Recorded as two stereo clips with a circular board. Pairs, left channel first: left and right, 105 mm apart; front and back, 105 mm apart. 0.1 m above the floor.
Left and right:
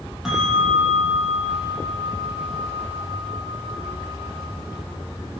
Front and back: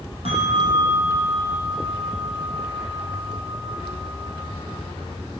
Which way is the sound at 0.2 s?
175° right.